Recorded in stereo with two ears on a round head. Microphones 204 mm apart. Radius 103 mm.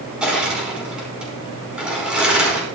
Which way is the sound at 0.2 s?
5° right (ahead or behind).